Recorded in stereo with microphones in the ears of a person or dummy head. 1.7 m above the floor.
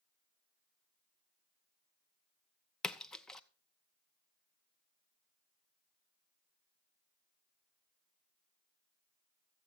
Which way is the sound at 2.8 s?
5° left (ahead or behind).